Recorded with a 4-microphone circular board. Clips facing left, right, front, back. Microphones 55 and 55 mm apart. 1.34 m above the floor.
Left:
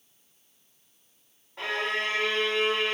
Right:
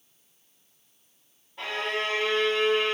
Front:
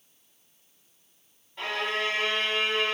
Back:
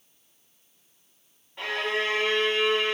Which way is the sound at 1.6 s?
105° left.